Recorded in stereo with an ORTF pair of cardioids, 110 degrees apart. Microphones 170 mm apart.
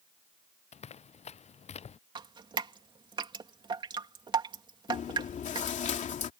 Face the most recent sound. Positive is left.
turn(degrees=50)